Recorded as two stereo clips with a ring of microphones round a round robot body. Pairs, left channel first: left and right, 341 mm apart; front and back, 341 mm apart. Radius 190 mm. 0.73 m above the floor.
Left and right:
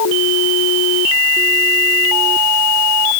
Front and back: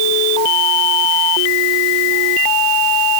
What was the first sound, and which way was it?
Only background noise.